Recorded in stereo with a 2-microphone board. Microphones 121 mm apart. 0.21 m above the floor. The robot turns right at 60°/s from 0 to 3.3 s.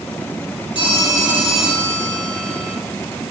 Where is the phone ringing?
135° left, 3 m; by 2.8 s 105° right, 3 m.